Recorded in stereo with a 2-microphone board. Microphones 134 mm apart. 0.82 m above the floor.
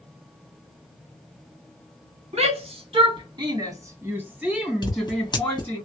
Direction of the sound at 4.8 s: 35° left (ahead or behind).